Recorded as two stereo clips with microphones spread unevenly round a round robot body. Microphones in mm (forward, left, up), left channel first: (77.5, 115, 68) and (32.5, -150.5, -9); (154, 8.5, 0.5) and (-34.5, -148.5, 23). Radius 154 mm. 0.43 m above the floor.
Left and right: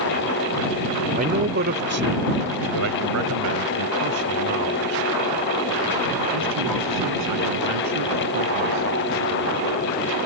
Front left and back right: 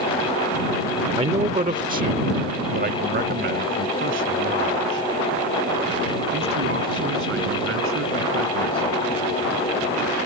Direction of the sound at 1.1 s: 75° right.